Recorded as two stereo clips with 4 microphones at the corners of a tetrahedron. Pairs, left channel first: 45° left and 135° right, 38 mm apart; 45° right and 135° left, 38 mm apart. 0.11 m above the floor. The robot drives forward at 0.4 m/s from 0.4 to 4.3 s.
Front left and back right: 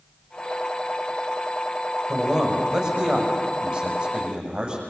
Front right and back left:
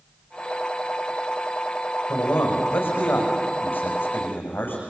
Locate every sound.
2.1 s a man speaking: 65° right, 6 m; by 4.8 s 70° right, 6 m